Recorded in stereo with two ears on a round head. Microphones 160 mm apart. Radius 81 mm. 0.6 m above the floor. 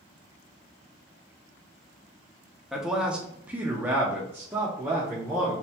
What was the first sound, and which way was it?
A man speaking, centre (ahead or behind).